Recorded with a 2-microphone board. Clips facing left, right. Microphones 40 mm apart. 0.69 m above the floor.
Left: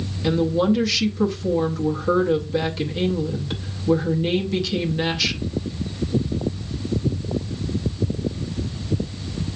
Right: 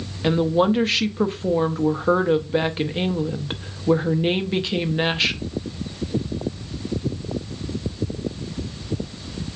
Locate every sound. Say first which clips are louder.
0.2 s a woman speaking: right 1 dB; 30° right (ahead or behind), 0.6 m